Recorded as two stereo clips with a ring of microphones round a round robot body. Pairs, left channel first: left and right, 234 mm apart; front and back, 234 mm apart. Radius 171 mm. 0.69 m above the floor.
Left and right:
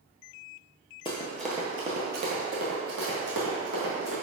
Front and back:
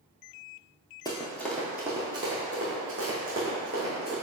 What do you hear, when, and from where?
1.1 s running footsteps: 55° left, 0.7 m; by 4.1 s 115° right, 2 m